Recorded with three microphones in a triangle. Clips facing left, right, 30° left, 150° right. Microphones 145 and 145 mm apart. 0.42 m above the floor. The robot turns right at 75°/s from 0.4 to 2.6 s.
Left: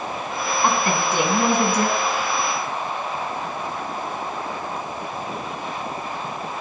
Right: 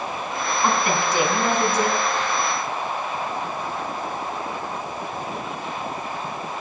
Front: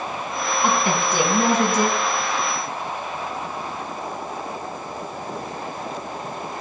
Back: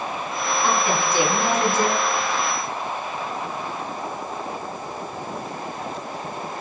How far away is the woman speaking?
About 4.5 m.